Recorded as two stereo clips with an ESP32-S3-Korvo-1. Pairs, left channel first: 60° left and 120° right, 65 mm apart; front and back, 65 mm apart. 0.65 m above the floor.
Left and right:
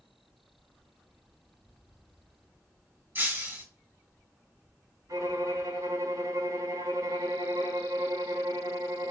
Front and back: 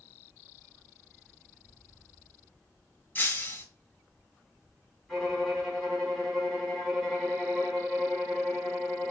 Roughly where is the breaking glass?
Ahead right.